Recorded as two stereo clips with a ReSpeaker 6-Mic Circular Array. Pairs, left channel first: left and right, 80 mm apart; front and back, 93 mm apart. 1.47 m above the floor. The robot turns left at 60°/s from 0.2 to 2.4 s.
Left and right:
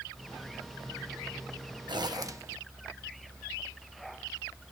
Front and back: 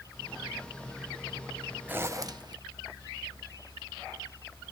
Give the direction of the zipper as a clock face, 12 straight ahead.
4 o'clock.